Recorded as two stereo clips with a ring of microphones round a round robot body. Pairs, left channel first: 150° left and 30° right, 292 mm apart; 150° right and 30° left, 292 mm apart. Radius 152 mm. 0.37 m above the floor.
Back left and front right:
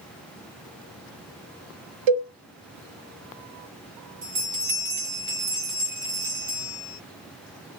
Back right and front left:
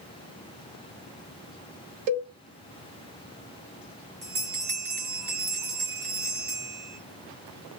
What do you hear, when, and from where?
2.1 s a cowbell: 10° right, 0.6 m
4.2 s a bell: straight ahead, 1.9 m